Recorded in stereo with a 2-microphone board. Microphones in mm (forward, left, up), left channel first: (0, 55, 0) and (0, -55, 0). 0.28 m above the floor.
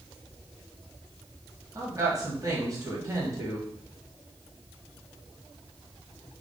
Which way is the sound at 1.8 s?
30° right (ahead or behind).